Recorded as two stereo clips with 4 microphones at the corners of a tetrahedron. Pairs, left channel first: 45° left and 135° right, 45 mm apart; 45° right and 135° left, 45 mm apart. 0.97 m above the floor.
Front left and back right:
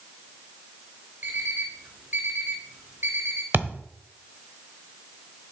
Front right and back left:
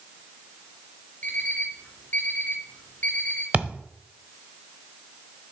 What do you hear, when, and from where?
1.2 s an alarm clock: 100° right, 2.5 m
3.5 s a thud: 165° right, 1.1 m